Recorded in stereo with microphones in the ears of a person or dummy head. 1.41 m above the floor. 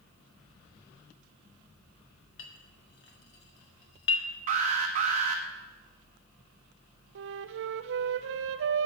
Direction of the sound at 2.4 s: 65° left (ahead or behind).